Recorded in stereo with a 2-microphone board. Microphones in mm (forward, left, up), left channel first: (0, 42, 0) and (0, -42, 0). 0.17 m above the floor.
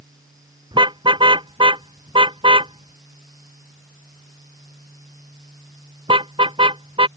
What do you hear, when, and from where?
0.7 s a car horn: 70° right (ahead or behind); by 7.1 s 80° right